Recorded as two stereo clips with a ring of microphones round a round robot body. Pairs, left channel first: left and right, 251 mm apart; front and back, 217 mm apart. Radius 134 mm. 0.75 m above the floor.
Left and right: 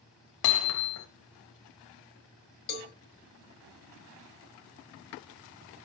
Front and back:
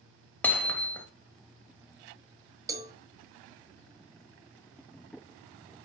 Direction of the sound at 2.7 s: 105° left.